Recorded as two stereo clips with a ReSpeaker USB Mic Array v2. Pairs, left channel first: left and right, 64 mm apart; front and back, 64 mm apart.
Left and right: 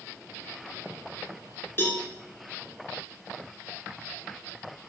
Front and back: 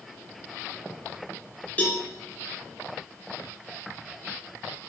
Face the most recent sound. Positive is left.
turn(degrees=55)